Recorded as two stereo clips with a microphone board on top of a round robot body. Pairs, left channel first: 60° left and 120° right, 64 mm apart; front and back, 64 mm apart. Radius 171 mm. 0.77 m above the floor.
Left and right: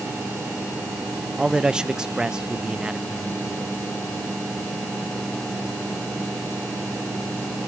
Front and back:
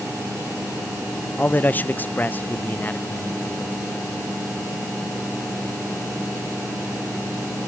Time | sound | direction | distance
1.4 | a man speaking | 50° right | 0.6 m